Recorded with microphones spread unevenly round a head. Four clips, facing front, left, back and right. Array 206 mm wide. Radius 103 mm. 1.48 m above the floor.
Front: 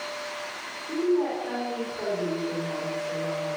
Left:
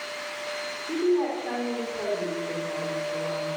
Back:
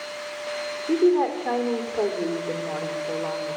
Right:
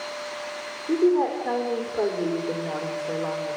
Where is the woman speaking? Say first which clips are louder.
Right 4 dB, back 5 dB; 145° right, 5 m; by 3.6 s 130° right, 4.5 m.